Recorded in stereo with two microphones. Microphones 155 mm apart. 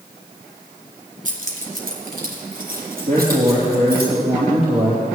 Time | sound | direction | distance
1.2 | keys jangling | 60° right (ahead or behind) | 1.9 m
3.1 | a man speaking | 70° right (ahead or behind) | 3.5 m